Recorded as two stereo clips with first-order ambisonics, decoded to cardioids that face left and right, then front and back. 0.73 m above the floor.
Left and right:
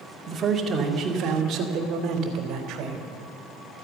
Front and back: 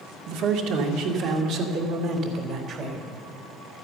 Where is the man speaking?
170° right, 2 m; by 3.2 s 125° right, 3 m.